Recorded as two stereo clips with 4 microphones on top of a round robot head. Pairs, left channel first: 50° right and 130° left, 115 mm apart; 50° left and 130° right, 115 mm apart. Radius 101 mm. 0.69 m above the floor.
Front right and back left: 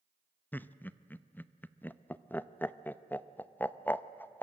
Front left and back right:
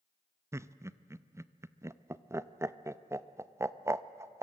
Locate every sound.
0.5 s laughter: 105° right, 0.7 m